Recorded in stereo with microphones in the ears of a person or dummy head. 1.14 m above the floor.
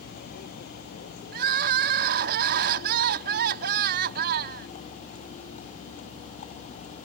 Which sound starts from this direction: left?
A vehicle, at 0.0 s.